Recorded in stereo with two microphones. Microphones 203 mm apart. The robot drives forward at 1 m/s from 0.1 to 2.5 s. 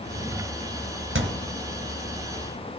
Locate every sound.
1.1 s a thud: 80° right, 2 m; by 1.5 s 85° right, 2.0 m